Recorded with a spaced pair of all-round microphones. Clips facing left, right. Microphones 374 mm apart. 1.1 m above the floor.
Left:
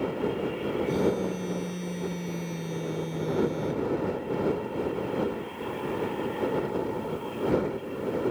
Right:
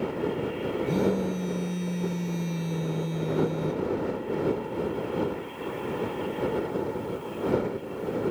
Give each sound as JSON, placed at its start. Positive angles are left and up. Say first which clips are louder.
{"t": 0.9, "sound": "a phone buzzing", "louder": "right 1 dB", "side_deg": -20}